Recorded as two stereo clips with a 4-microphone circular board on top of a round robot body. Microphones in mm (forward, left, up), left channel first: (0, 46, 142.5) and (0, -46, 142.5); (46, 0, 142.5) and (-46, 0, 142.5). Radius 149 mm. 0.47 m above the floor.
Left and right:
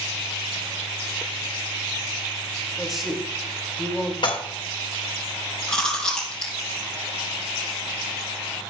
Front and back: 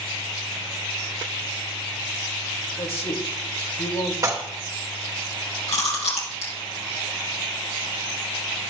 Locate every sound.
2.8 s a man speaking: straight ahead, 3 m
4.2 s dishes clattering: 125° left, 1.8 m
5.7 s chewing: 10° left, 3.5 m